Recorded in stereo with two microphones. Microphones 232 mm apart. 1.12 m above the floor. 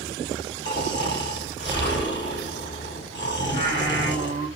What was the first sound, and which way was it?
Snoring, 50° left (ahead or behind).